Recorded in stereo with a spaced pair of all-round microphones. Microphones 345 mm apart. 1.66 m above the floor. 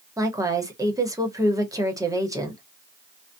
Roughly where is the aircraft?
No aircraft in this recording.